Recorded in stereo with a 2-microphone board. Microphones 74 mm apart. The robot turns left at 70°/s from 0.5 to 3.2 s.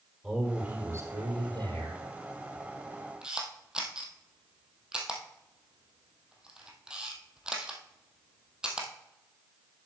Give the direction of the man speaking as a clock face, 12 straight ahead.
12 o'clock.